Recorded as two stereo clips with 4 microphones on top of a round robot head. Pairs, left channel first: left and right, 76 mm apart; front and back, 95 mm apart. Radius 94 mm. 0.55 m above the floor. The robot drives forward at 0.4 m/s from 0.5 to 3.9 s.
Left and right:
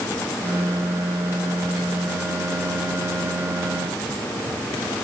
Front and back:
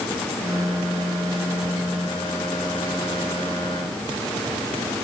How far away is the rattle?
I don't hear a rattle.